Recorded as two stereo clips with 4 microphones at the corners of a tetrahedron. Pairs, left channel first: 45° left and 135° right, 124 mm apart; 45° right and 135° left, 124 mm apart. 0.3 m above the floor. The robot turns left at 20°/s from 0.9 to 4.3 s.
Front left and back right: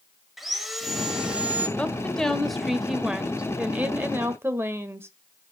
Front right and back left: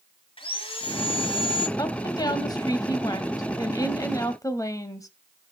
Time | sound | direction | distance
0.4 | sawing | 45° right | 1.3 m
1.8 | a woman speaking | 30° right | 1.0 m